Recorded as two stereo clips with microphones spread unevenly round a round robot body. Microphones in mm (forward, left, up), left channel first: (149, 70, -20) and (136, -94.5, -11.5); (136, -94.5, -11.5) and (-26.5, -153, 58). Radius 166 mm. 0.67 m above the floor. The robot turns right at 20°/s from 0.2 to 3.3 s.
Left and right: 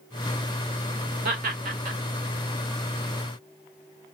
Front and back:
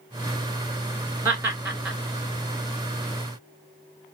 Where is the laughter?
80° right, 2.5 m; by 2.0 s 65° right, 2.5 m.